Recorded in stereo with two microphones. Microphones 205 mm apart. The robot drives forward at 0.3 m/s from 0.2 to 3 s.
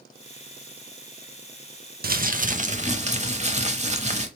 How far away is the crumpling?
About 0.6 m.